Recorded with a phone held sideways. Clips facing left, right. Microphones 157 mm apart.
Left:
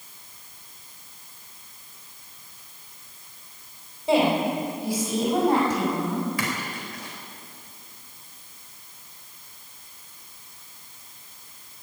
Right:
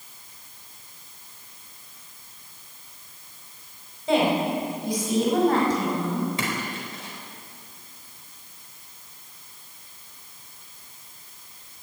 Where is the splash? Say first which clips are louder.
Right 1 dB; 25° right (ahead or behind), 4 m.